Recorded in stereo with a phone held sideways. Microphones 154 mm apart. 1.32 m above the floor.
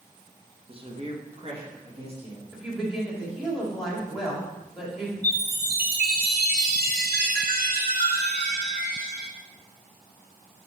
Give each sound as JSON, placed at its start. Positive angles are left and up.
{"t": 0.7, "sound": "a man speaking", "side_deg": -35, "distance_m": 1.2}
{"t": 2.5, "sound": "a woman speaking", "side_deg": 0, "distance_m": 3.0}
{"t": 5.2, "sound": "a chime", "side_deg": -85, "distance_m": 1.5}